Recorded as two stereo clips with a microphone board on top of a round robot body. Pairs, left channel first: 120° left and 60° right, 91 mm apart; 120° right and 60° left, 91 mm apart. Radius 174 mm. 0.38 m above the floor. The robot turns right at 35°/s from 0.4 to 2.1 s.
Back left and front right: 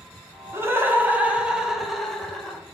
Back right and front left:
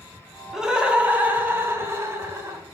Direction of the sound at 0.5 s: 20° right.